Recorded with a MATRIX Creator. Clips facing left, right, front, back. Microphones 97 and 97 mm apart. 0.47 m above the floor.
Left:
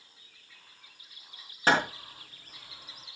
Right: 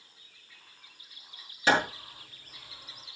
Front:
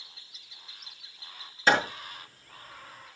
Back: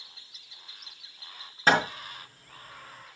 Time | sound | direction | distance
1.7 | hammering | 135° left | 4.5 m